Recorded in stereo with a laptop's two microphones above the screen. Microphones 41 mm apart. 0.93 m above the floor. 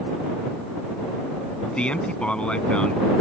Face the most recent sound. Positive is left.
turn(degrees=30)  # may be behind; listen again after turning